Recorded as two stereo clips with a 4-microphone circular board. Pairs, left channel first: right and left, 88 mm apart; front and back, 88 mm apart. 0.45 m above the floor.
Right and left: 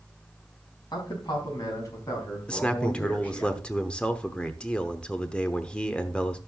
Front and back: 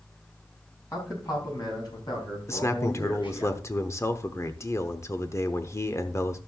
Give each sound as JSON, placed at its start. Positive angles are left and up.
{"t": 0.9, "sound": "a man speaking", "azimuth_deg": -50, "distance_m": 4.5}
{"t": 2.5, "sound": "a man speaking", "azimuth_deg": -20, "distance_m": 0.9}